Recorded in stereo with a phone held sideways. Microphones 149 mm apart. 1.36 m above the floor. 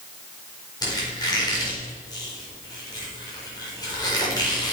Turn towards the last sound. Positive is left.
turn(degrees=25)  # may be behind; listen again after turning